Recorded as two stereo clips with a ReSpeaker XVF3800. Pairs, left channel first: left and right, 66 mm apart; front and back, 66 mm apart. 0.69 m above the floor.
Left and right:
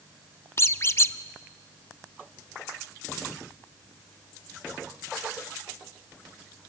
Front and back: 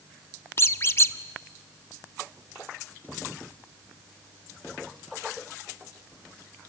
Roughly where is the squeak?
Ahead left.